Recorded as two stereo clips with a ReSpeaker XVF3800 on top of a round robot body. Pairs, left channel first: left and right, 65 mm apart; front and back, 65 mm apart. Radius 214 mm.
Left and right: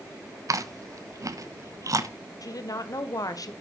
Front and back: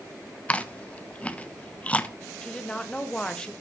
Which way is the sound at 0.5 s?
70° right.